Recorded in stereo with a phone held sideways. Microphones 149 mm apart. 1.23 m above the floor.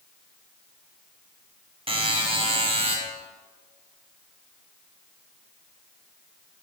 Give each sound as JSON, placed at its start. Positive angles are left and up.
{"t": 1.9, "sound": "a buzzer", "side_deg": -40, "distance_m": 1.1}